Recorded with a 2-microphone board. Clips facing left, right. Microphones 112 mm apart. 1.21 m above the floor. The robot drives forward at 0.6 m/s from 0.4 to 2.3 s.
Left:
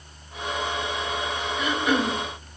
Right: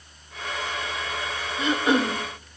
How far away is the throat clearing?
About 1.0 m.